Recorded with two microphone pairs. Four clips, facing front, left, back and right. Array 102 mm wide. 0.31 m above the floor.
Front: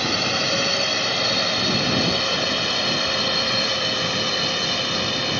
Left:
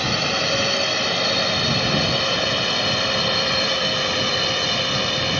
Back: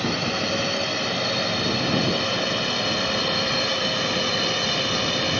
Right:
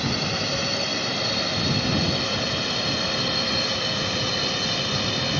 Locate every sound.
0.0 s a drone: 65° left; by 5.4 s 105° left